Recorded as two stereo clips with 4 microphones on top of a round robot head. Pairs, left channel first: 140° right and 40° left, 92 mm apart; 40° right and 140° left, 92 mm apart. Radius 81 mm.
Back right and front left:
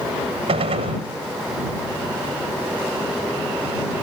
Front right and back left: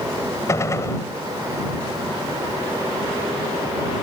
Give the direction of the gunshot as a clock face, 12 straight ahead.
11 o'clock.